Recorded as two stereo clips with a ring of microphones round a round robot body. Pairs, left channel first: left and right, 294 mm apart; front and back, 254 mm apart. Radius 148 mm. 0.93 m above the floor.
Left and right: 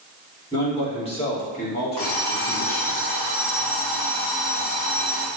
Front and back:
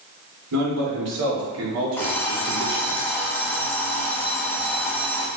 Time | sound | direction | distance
0.5 | a man speaking | 165° left | 3 m
2.0 | an alarm clock | 80° left | 2.5 m